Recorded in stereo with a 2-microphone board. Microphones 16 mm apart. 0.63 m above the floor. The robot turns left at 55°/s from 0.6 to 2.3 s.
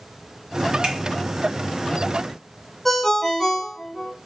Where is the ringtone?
15° left (ahead or behind), 1.7 m.